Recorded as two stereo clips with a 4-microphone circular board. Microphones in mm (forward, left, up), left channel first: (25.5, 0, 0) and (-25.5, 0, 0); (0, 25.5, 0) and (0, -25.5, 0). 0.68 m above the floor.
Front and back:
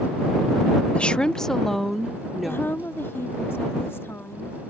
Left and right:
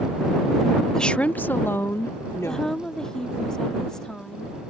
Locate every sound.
0.9 s a woman speaking: 30° left; by 2.8 s 95° left
2.5 s a woman speaking: 20° left